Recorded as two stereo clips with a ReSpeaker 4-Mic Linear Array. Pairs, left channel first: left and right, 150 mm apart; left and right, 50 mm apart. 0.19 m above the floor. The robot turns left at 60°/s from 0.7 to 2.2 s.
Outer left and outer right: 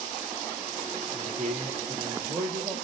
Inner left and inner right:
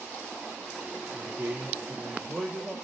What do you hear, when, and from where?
1.1 s a man speaking: 95° right, 4 m; by 2.8 s 160° right, 4 m